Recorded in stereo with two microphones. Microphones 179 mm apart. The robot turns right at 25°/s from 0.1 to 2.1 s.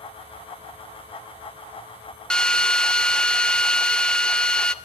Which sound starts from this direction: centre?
A drill, at 2.3 s.